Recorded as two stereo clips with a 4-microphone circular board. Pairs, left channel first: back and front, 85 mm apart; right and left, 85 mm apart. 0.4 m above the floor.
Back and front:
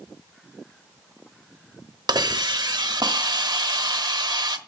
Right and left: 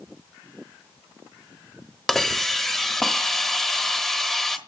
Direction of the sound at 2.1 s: 5° right.